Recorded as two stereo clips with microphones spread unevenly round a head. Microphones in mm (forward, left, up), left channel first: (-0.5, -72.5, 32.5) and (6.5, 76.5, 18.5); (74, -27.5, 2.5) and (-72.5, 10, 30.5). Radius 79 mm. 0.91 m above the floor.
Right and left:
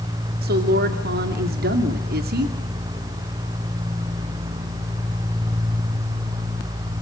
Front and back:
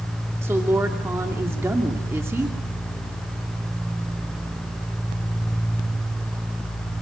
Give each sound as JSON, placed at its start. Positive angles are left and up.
{"t": 0.4, "sound": "a woman speaking", "azimuth_deg": 85, "distance_m": 2.5}